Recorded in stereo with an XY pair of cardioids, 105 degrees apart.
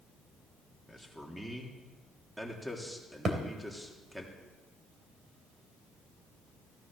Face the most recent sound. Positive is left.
turn(degrees=-45)